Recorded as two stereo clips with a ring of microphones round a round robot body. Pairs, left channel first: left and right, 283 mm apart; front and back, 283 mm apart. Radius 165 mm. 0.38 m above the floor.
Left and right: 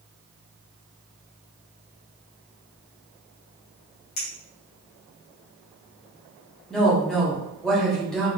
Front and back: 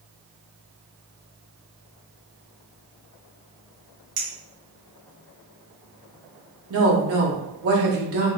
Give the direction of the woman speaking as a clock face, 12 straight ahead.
6 o'clock.